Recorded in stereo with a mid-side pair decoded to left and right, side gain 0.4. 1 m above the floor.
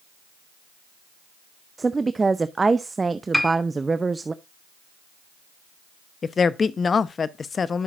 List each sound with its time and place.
1.8 s a woman speaking: 30° right, 0.6 m
3.3 s a piano: 5° left, 1.5 m
6.2 s a woman speaking: 45° left, 0.9 m